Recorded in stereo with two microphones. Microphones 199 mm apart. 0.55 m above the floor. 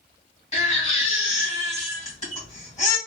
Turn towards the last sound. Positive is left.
turn(degrees=35)  # may be behind; listen again after turning